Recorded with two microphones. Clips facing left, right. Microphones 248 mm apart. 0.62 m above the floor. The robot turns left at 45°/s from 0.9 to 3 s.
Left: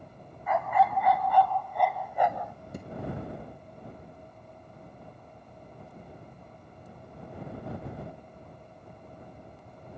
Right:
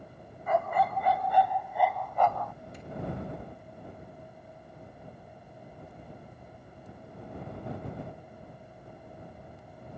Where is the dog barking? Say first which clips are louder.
Left 1 dB; 135° right; by 2.5 s 150° left.